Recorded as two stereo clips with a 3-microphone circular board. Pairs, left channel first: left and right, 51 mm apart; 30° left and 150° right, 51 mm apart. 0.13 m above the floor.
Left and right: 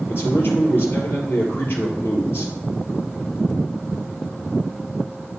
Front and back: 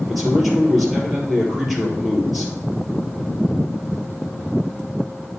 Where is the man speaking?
120° left, 2.5 m.